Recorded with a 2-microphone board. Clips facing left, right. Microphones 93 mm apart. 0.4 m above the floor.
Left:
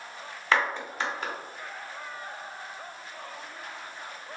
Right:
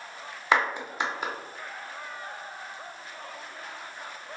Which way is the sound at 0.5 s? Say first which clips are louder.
Right 1 dB; 15° right (ahead or behind).